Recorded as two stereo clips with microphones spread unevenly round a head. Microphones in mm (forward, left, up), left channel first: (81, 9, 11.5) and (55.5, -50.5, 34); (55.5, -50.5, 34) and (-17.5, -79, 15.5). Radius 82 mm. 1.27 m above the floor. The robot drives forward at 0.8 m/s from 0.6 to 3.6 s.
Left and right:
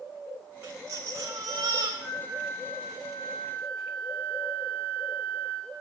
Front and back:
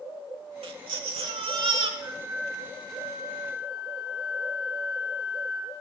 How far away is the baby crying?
About 1.2 m.